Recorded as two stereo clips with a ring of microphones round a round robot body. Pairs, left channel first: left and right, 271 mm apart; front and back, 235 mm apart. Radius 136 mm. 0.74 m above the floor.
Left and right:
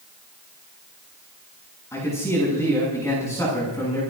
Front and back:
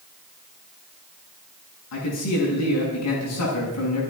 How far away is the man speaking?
About 6 m.